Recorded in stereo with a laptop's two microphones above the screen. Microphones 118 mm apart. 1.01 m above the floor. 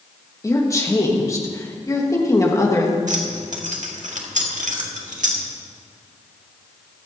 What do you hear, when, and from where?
0.4 s a woman speaking: 25° left (ahead or behind), 1.2 m
3.1 s keys jangling: 80° right, 1.5 m